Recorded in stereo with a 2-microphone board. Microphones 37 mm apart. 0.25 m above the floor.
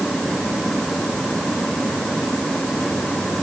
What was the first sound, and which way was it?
Only background noise.